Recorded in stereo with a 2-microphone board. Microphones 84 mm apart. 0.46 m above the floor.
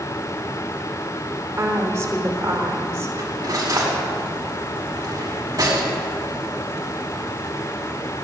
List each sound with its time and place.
1.6 s a woman speaking: 40° right (ahead or behind), 1.3 m
3.2 s cutlery clinking: 45° right (ahead or behind), 1.8 m